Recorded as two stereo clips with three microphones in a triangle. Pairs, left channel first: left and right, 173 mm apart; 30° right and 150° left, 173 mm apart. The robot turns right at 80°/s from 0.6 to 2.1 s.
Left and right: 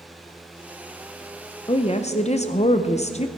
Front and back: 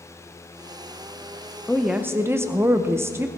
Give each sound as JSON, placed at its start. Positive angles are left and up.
{"t": 1.7, "sound": "a woman speaking", "azimuth_deg": 50, "distance_m": 0.6}